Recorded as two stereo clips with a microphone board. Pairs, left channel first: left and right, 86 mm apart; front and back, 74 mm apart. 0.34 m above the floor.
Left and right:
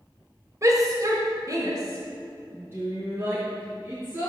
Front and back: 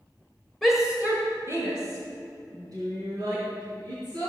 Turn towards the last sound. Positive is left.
turn(degrees=-155)